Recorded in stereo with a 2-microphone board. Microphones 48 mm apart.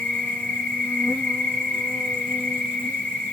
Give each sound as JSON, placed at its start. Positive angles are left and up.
{"t": 0.0, "sound": "an insect", "side_deg": 30, "distance_m": 1.8}